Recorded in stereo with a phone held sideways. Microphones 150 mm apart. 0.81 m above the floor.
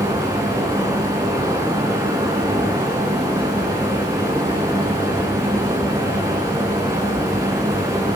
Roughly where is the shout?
I don't hear a shout.